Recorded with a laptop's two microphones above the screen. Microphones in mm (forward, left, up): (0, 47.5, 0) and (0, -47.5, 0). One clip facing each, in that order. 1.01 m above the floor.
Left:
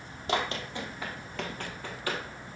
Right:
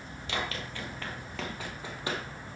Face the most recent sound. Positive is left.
turn(degrees=-25)  # may be behind; listen again after turning